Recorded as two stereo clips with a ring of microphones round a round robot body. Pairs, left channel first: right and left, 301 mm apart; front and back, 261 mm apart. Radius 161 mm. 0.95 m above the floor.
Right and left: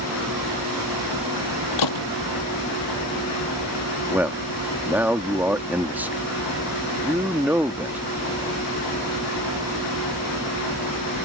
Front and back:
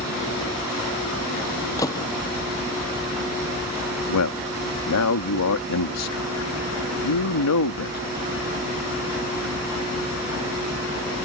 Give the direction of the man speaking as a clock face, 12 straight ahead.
12 o'clock.